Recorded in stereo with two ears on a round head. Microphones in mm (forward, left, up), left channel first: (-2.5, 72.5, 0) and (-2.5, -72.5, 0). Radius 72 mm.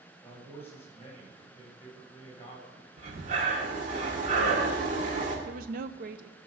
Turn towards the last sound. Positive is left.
turn(degrees=-55)  # may be behind; listen again after turning